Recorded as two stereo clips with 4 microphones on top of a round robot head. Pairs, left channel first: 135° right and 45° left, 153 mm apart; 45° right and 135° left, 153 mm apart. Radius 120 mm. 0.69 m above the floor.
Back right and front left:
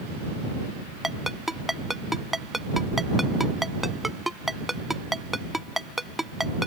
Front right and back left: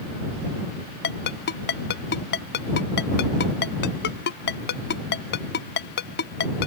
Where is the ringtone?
45° right.